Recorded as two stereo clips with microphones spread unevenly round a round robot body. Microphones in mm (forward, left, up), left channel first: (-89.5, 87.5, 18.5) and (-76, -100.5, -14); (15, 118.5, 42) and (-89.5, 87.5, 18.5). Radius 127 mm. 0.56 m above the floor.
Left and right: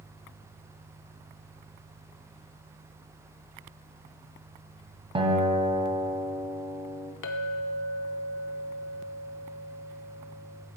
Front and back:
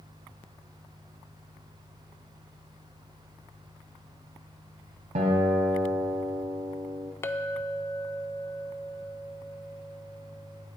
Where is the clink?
90° left, 0.7 m.